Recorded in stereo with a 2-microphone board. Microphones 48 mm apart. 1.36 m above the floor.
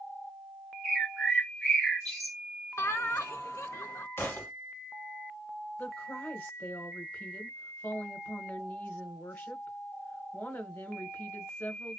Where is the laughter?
65° left (ahead or behind), 0.8 m.